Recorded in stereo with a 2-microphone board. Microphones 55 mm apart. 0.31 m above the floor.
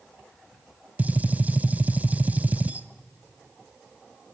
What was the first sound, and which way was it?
A gunshot, 30° right (ahead or behind).